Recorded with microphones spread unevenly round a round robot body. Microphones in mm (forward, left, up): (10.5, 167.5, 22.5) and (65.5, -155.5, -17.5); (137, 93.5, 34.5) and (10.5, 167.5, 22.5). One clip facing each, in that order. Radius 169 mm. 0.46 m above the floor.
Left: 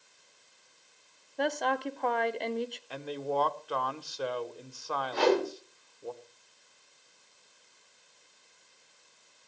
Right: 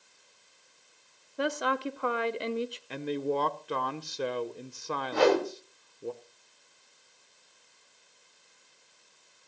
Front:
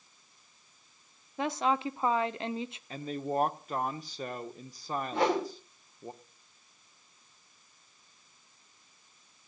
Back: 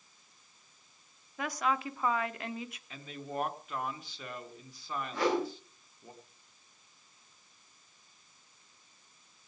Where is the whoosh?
105° right, 2.5 m.